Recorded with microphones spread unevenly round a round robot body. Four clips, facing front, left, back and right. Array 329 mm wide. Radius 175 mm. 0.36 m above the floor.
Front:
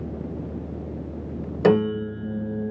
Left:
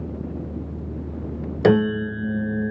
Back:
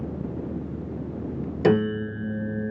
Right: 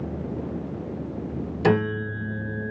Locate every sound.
1.6 s a piano: 95° left, 1.5 m